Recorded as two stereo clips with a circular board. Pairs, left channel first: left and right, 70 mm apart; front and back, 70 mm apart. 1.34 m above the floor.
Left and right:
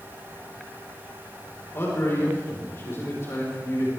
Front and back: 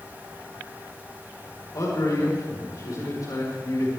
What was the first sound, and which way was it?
A man speaking, 35° left.